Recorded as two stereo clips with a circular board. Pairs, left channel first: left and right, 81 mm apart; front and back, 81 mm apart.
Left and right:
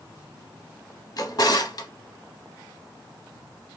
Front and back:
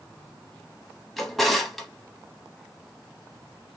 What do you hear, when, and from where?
1.2 s a drawer: 85° left, 0.6 m